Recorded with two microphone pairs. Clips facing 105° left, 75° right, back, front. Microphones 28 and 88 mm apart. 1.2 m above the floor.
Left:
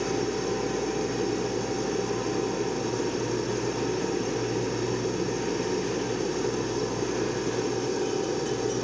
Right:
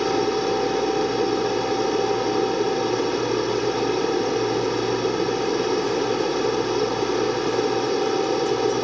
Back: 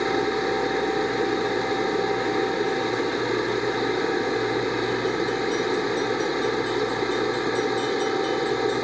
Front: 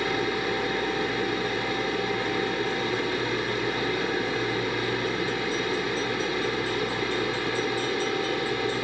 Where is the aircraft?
115° right.